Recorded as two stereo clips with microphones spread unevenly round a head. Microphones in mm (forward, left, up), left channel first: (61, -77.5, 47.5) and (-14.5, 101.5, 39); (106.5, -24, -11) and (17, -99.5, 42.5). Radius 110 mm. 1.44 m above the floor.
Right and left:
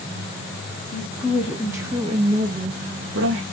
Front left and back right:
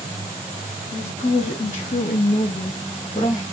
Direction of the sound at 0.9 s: 10° left.